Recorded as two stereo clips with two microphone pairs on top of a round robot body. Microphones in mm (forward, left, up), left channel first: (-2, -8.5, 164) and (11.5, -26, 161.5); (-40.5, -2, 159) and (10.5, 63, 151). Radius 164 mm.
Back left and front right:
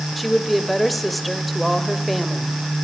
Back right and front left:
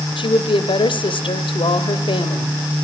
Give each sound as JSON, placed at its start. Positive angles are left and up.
{"t": 0.2, "sound": "a woman speaking", "azimuth_deg": -140, "distance_m": 2.0}